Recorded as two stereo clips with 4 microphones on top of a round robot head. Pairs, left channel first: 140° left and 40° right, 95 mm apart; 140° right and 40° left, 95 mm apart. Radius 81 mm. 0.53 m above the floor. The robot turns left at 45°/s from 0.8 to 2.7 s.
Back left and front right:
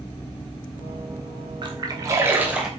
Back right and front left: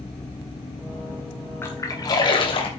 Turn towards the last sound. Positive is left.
turn(degrees=-125)